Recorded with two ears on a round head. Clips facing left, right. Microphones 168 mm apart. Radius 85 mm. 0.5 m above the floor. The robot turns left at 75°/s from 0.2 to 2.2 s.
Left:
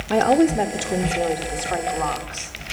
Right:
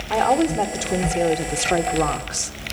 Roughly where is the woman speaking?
Ahead left.